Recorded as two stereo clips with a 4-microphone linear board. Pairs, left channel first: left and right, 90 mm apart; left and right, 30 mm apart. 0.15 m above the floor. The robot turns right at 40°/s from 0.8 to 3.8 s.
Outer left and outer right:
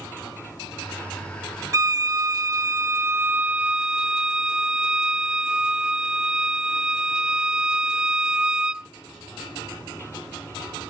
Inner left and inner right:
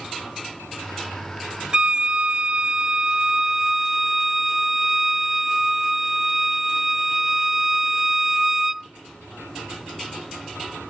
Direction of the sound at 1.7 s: 100° right.